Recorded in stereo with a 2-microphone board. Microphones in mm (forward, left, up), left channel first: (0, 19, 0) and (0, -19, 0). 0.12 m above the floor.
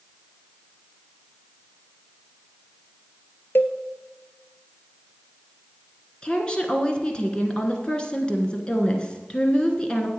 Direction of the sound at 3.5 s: 60° left (ahead or behind).